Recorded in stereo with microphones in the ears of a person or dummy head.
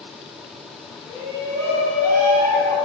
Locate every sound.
1.1 s a shout: 25° right (ahead or behind), 1.7 m; by 2.8 s 55° right (ahead or behind), 0.8 m